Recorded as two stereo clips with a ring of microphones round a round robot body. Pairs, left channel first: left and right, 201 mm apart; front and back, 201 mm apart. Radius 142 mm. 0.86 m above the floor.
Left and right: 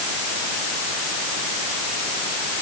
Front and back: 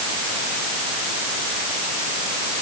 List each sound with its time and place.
Only background noise.